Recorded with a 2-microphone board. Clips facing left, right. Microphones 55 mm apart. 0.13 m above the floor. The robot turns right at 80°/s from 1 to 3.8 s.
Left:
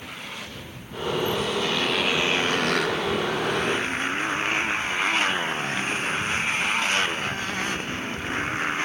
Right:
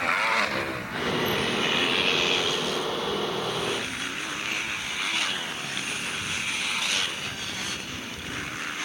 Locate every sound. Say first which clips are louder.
0.0 s a motorcycle: right 13 dB; 80° right; by 8.8 s 145° left